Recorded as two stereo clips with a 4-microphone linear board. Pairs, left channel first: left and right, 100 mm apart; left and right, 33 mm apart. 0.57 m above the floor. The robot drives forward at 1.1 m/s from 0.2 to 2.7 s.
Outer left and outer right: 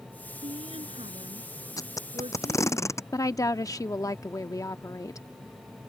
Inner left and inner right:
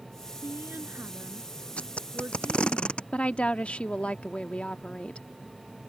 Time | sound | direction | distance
0.4 | a woman speaking | 70° right (ahead or behind) | ?
1.8 | tape being pulled | 35° left (ahead or behind) | ?
3.1 | a woman speaking | 35° left (ahead or behind) | ?